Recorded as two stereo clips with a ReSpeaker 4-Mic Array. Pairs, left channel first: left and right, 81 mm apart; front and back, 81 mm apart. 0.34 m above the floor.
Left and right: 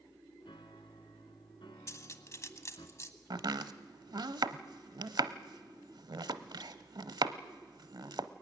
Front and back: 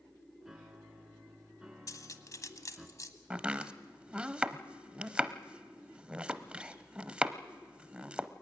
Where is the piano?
95° left, 2 m.